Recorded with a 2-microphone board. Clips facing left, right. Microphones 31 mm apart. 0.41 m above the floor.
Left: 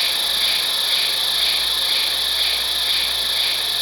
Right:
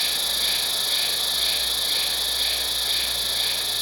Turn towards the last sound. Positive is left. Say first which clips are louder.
# left 5 dB
turn(degrees=30)  # may be behind; listen again after turning